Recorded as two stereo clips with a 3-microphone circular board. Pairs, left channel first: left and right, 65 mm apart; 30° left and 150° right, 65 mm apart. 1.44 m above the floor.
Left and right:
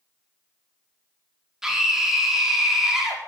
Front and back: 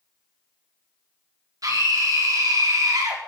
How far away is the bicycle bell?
No bicycle bell in this recording.